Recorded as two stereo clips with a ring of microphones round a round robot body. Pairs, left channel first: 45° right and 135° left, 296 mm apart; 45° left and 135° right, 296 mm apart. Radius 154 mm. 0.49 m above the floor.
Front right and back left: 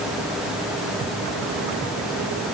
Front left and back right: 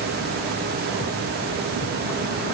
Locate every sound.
Only background noise.